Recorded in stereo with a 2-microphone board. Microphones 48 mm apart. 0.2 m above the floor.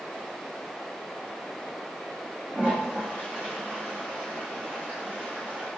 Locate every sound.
2.5 s a toilet flushing: 30° right (ahead or behind), 7 m